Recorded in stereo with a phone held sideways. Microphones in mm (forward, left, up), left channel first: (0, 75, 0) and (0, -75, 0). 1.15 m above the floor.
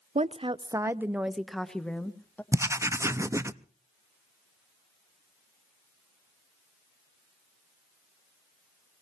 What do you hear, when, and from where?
0.1 s a woman speaking: 45° right (ahead or behind), 0.5 m; by 2.4 s 10° left (ahead or behind), 1.4 m
2.5 s writing: 20° right (ahead or behind), 0.6 m